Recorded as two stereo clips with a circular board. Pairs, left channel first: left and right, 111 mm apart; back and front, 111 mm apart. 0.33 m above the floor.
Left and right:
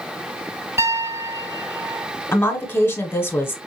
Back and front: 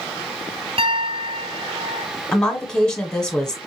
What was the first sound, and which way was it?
A piano, 25° right.